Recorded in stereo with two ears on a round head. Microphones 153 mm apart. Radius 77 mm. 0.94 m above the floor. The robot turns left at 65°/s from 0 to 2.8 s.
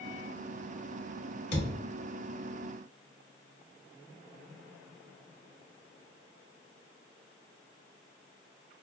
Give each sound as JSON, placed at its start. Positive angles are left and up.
{"t": 1.5, "sound": "a thud", "side_deg": 35, "distance_m": 1.1}